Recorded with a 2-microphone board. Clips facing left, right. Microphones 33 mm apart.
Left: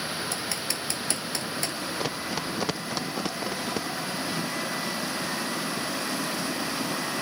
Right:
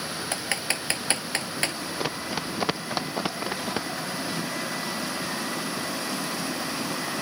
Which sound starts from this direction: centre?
Running footsteps, at 2.0 s.